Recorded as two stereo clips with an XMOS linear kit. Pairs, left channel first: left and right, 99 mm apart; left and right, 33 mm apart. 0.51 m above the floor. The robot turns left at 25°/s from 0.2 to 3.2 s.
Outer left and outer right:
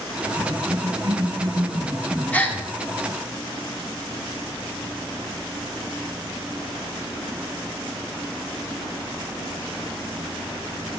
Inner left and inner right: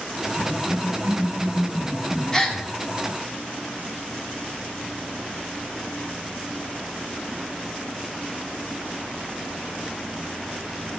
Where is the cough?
110° right, 3.5 m; by 2.7 s 170° right, 3.5 m.